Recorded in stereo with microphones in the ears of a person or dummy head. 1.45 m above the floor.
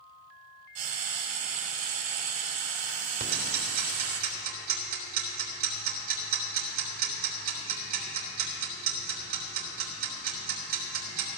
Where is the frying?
35° right (ahead or behind), 1.5 m.